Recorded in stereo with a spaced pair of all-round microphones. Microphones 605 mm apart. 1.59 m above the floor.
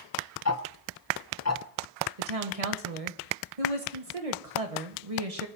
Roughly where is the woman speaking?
Right.